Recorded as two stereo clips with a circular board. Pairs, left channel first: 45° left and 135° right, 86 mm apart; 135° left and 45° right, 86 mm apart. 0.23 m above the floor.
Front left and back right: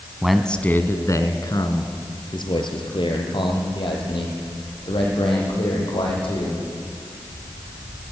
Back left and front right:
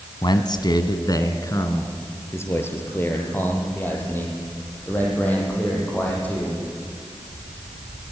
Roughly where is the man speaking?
Behind left.